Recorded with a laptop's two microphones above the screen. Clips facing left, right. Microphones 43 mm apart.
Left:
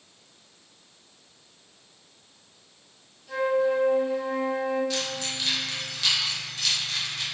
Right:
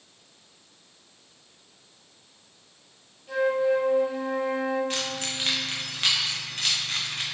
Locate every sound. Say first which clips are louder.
3.3 s a flute: right 1 dB; 25° right (ahead or behind), 1.7 m
4.9 s keys jangling: even; 40° right (ahead or behind), 0.5 m